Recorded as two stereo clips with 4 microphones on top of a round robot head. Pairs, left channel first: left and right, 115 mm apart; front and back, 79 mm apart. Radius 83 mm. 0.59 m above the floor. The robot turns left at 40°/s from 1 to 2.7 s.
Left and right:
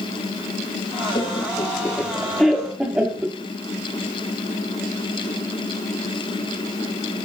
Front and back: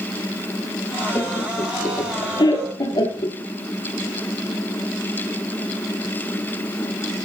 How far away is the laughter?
About 1.5 m.